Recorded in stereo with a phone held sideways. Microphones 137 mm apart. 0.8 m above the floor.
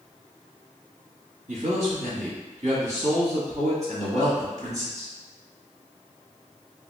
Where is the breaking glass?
No breaking glass in this recording.